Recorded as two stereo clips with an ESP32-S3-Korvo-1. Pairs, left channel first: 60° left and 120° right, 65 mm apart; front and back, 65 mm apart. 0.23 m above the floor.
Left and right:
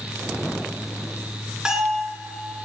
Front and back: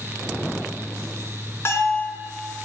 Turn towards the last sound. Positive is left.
turn(degrees=-45)